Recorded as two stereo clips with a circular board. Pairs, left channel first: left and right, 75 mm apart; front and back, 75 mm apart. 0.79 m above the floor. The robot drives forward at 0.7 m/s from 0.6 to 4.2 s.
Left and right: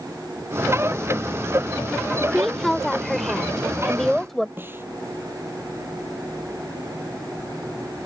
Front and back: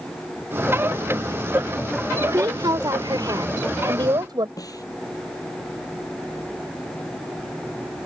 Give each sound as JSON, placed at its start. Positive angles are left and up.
{"t": 2.2, "sound": "a woman speaking", "azimuth_deg": 175}
{"t": 4.6, "sound": "a snare drum", "azimuth_deg": -30}